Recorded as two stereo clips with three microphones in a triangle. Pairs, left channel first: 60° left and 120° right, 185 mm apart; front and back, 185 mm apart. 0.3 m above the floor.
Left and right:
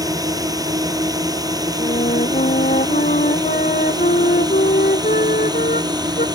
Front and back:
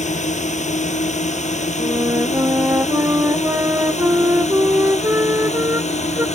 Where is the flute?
105° left.